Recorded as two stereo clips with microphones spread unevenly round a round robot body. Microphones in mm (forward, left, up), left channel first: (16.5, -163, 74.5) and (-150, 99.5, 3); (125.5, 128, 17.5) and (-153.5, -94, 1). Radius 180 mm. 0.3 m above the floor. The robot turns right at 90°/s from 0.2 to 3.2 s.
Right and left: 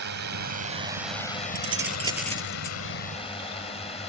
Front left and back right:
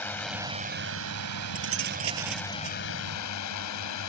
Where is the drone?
120° left; by 4.1 s 20° left.